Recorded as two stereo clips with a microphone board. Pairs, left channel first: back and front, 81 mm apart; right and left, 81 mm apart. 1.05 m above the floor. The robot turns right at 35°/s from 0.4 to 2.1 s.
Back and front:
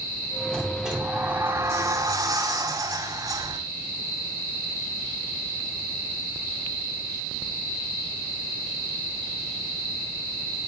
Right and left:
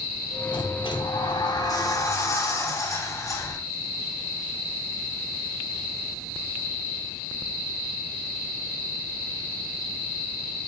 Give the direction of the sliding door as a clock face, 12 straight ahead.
3 o'clock.